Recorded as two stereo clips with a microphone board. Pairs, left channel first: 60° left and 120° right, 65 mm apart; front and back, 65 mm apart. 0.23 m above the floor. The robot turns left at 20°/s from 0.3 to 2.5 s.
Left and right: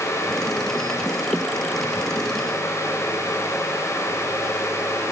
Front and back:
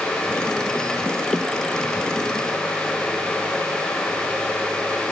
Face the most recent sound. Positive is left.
No sound to turn to.